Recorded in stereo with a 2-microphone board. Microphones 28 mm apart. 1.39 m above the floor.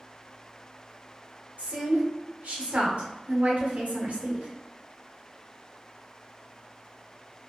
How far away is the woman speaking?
About 1.0 m.